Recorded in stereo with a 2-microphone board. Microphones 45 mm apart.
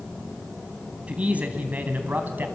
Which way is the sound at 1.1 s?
25° right (ahead or behind).